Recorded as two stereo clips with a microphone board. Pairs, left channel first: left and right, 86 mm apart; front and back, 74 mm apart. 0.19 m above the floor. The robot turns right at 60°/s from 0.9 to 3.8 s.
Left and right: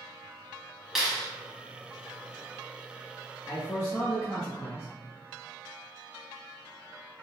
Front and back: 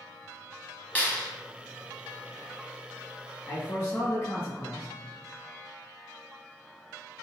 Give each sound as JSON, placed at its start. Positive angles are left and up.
{"t": 0.9, "sound": "a clap", "azimuth_deg": -10, "distance_m": 0.8}
{"t": 3.5, "sound": "a man speaking", "azimuth_deg": 30, "distance_m": 1.8}